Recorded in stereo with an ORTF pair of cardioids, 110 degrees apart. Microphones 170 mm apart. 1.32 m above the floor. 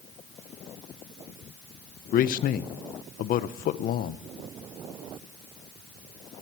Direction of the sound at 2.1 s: 55° left.